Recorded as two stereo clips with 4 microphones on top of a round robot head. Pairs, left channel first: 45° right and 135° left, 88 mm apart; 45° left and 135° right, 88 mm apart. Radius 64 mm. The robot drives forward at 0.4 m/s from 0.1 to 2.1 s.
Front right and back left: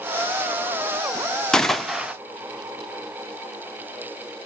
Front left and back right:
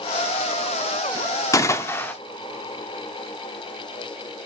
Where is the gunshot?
30° left, 0.6 m; by 2.1 s 70° left, 0.5 m.